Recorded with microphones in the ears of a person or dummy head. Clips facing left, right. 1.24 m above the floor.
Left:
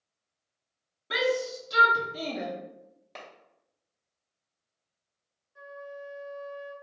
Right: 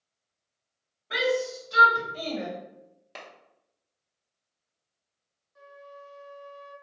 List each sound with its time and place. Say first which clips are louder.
1.1 s a shout: right 1 dB; 50° left (ahead or behind), 0.9 m
3.1 s a clap: right 1 dB; 5° right (ahead or behind), 0.7 m
5.5 s a flute: left 6 dB; 15° left (ahead or behind), 0.7 m